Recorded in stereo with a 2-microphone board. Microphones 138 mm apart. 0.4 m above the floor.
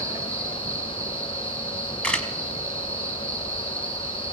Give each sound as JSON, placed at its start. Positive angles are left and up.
{"t": 0.0, "sound": "an insect", "side_deg": -20, "distance_m": 5.5}
{"t": 2.0, "sound": "a camera shutter", "side_deg": 10, "distance_m": 1.5}